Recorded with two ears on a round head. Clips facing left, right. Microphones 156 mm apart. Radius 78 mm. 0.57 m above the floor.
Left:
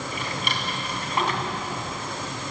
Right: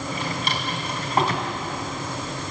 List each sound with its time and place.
0.1 s a drawer: 35° right (ahead or behind), 3.5 m